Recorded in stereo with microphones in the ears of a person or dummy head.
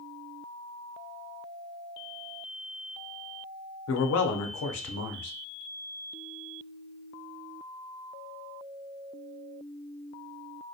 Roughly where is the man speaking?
Left.